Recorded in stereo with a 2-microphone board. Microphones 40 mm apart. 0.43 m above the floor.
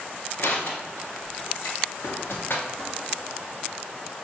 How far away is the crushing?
About 1.1 m.